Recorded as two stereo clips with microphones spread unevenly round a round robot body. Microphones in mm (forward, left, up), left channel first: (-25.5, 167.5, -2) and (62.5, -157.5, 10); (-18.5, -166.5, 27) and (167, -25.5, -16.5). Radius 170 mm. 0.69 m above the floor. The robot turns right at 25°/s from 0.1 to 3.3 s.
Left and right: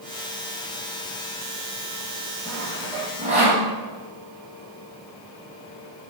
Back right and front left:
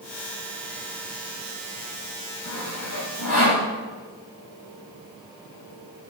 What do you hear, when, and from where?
2.5 s sawing: 165° right, 4.5 m; by 3.6 s 145° right, 4.5 m